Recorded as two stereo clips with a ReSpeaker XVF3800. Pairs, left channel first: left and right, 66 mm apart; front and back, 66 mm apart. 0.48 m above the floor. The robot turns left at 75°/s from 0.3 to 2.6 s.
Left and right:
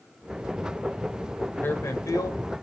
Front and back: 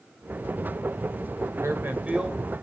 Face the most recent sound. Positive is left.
turn(degrees=70)